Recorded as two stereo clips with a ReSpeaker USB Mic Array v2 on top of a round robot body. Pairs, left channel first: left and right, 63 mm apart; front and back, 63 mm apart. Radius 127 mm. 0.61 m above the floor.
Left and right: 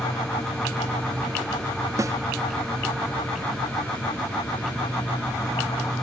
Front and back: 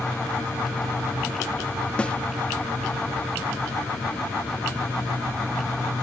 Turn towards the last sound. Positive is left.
turn(degrees=-70)